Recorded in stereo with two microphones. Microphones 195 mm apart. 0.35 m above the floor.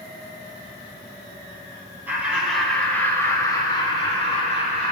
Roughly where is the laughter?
Centre.